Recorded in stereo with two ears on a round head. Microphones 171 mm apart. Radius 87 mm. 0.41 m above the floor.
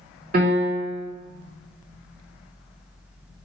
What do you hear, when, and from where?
0.3 s a piano: 45° right (ahead or behind), 1.6 m